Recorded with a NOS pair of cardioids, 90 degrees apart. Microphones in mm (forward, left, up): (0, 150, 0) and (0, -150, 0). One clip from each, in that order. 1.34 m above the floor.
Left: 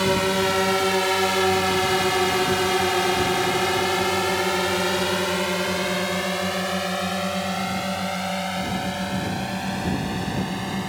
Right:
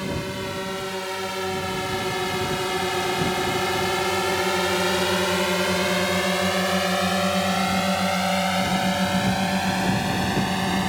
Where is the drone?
70° left; by 10.9 s 35° right.